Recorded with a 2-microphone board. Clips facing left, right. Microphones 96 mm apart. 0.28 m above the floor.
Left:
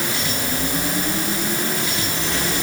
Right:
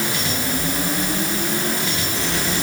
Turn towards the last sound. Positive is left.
No sound to turn to.